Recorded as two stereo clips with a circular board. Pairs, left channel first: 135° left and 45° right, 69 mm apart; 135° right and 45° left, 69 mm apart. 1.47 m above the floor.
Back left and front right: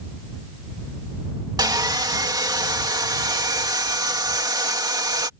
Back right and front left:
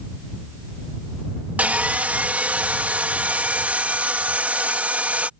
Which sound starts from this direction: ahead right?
Sawing, at 1.6 s.